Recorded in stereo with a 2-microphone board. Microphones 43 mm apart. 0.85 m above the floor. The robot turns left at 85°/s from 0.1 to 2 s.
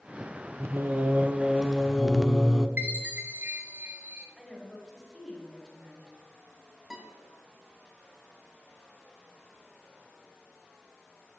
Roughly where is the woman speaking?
Centre.